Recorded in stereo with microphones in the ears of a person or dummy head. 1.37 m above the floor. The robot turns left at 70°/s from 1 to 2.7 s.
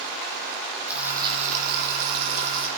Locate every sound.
0.9 s frying: 10° right, 3 m; by 2.7 s 125° right, 3 m